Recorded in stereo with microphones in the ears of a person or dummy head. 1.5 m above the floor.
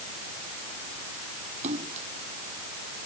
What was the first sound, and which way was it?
A splash, 40° right (ahead or behind).